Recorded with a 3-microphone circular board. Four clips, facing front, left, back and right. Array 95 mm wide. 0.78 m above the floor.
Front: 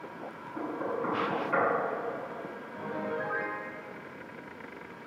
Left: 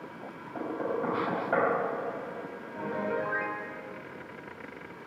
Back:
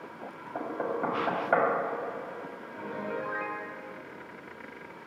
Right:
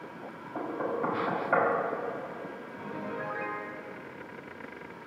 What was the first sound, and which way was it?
Knocking, 165° right.